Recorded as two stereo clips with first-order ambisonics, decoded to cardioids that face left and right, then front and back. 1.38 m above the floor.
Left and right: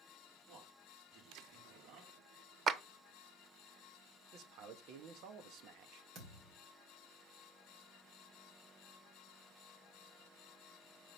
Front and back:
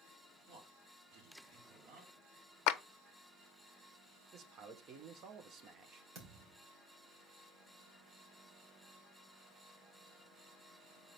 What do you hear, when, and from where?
0.5 s a man speaking: 140° right, 4 m
2.7 s a clap: 25° right, 0.6 m
4.3 s a man speaking: 130° right, 1.1 m
6.2 s a thud: 135° right, 2.5 m